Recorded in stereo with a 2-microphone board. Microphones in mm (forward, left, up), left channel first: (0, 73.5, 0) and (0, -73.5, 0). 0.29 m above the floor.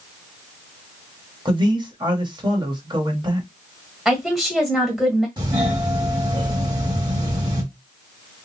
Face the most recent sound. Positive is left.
turn(degrees=-30)  # may be behind; listen again after turning